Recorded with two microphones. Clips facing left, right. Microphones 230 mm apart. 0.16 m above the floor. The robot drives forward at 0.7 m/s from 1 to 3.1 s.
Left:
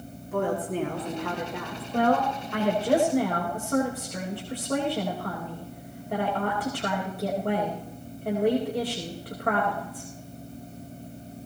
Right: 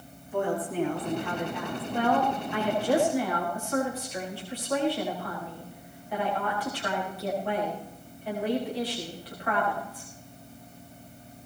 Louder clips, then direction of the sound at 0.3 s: Left 1 dB; 70° left (ahead or behind).